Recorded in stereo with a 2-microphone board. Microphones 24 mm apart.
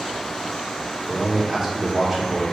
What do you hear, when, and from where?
1.1 s a man speaking: 20° right (ahead or behind), 3 m